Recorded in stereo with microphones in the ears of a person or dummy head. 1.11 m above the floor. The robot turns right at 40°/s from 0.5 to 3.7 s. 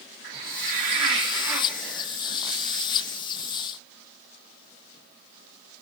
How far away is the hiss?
About 2.5 m.